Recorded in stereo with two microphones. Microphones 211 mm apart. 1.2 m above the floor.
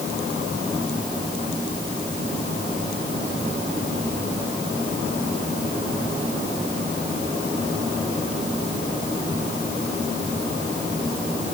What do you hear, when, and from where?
Only background noise.